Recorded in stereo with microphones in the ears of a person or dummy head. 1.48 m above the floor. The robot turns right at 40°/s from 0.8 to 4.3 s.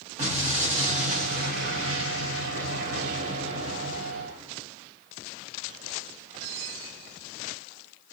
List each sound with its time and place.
0.2 s an explosion: 140° right, 1.1 m; by 4.7 s straight ahead, 1.1 m